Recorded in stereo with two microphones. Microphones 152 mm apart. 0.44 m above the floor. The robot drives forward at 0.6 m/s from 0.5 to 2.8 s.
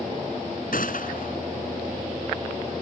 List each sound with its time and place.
0.7 s a gunshot: 70° left (ahead or behind); by 1.4 s 65° left (ahead or behind)